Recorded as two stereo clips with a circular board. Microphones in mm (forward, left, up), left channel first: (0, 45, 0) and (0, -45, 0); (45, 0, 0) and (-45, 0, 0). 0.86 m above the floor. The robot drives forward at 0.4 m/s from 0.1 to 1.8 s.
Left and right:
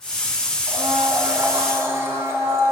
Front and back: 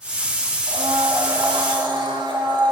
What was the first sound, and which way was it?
A blender, 145° right.